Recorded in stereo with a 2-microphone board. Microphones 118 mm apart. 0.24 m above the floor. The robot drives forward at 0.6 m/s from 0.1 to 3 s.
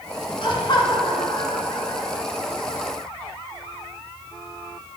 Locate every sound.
0.4 s laughter: 45° left (ahead or behind), 1.7 m; by 2.2 s 30° left (ahead or behind), 2.5 m